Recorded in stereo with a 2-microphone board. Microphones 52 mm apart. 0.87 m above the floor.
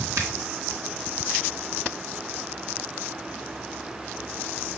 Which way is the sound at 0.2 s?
65° right (ahead or behind).